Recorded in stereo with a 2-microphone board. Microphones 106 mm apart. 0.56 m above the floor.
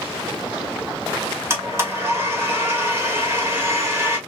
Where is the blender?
25° right (ahead or behind), 2 m.